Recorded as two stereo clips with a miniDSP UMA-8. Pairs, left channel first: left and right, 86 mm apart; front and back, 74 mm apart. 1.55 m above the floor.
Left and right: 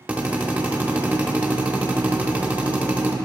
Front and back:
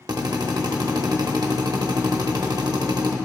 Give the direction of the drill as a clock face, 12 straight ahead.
5 o'clock.